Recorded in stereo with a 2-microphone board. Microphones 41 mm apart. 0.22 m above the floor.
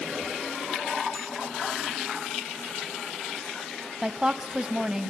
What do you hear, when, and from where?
1.1 s a bicycle bell: 10° right (ahead or behind), 6 m
4.0 s a woman speaking: 20° right (ahead or behind), 1.1 m